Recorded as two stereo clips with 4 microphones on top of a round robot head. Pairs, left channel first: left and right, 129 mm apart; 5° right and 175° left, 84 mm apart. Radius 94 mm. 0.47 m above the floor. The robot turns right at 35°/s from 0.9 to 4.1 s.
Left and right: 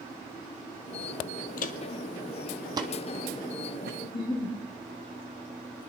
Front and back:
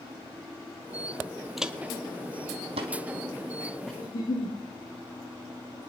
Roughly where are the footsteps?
Left.